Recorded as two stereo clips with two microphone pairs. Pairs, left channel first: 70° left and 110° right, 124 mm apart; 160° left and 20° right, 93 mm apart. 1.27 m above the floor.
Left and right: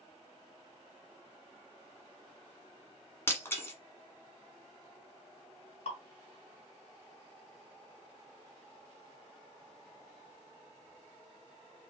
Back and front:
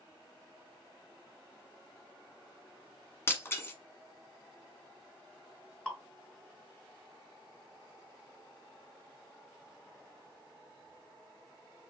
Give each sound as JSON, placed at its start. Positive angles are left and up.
{"t": 3.3, "sound": "breaking glass", "azimuth_deg": 125, "distance_m": 1.3}
{"t": 5.8, "sound": "dripping", "azimuth_deg": 75, "distance_m": 1.8}